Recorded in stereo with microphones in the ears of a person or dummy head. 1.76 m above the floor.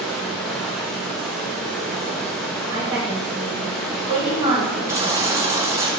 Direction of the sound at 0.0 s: Centre (ahead or behind).